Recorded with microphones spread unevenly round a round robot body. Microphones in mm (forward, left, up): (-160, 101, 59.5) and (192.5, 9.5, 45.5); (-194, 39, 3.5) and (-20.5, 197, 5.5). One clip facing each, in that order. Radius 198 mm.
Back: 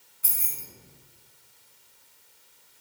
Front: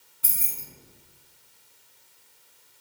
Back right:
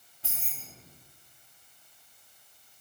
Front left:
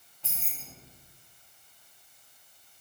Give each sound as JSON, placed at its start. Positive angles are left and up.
{"t": 0.2, "sound": "keys jangling", "azimuth_deg": -70, "distance_m": 0.9}